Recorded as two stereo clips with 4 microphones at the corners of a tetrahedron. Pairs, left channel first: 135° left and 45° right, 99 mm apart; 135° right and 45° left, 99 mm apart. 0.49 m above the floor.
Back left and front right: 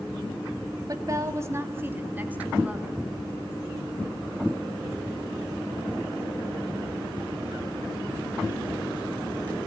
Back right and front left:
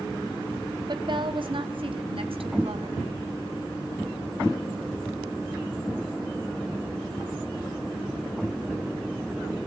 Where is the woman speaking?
5° left, 2.5 m; by 3.1 s 35° left, 4.5 m.